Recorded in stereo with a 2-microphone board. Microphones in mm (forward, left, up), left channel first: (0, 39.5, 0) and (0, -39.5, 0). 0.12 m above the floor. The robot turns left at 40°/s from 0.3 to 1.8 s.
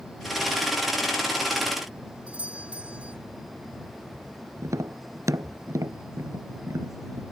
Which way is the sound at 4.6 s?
45° right (ahead or behind).